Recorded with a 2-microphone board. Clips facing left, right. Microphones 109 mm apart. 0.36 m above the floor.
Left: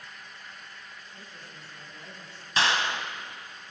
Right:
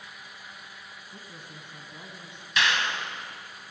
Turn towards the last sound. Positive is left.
turn(degrees=35)  # may be behind; listen again after turning